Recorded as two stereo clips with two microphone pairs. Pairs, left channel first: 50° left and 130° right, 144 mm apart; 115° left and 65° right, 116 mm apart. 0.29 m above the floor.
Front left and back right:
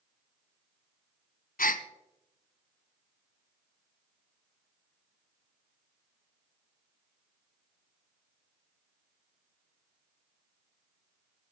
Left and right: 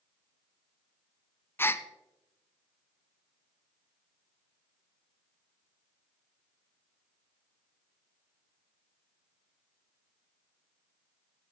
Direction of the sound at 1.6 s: 45° left.